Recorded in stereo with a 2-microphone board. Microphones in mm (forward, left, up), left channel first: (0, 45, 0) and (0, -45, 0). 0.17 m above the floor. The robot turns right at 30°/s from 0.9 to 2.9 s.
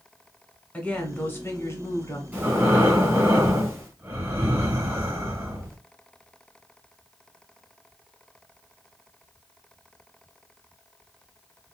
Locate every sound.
0.7 s a woman speaking: 30° left, 1.3 m; by 2.2 s 70° left, 1.3 m
2.3 s breathing: 20° right (ahead or behind), 1.8 m; by 5.8 s 30° right (ahead or behind), 1.8 m